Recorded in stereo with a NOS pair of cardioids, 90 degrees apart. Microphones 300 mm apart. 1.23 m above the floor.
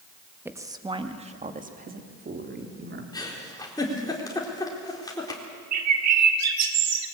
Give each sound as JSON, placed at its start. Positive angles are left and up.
{"t": 0.5, "sound": "a woman speaking", "azimuth_deg": -5, "distance_m": 1.7}
{"t": 3.1, "sound": "a giggle", "azimuth_deg": 10, "distance_m": 4.0}
{"t": 5.7, "sound": "a bird", "azimuth_deg": -65, "distance_m": 2.0}